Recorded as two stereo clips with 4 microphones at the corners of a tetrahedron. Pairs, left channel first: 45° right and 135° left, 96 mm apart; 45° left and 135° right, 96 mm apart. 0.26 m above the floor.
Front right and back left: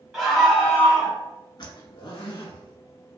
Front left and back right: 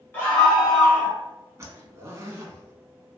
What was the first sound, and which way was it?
A scream, 50° left.